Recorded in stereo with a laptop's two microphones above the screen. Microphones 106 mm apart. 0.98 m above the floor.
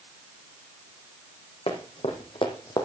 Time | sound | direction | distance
1.7 | running footsteps | 70° left (ahead or behind) | 3 m